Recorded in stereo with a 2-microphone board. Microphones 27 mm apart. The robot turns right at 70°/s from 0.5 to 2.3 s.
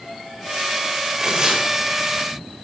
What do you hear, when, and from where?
1.2 s tearing paper: 25° right (ahead or behind), 0.8 m